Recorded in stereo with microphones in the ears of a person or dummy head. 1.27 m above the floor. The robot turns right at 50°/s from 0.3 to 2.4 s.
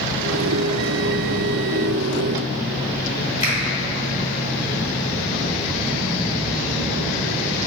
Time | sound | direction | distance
3.4 | a finger snap | 35° left (ahead or behind) | 1.7 m